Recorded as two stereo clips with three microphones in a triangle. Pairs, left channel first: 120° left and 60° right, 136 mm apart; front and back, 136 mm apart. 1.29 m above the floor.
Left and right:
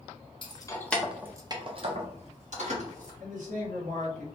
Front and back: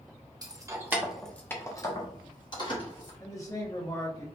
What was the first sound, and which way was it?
Keys jangling, 140° left.